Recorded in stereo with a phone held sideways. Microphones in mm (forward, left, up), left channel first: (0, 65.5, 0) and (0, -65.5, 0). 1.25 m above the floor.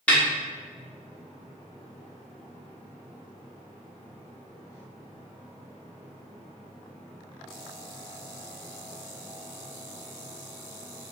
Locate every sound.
0.1 s a snare drum: 10° left (ahead or behind), 1.0 m